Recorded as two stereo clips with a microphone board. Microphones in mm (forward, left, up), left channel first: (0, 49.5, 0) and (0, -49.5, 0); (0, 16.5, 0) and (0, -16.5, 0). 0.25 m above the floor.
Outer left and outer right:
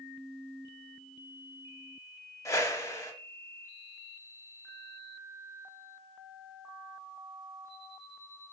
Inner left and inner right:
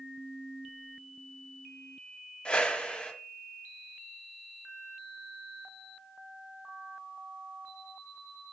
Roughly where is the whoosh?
Left.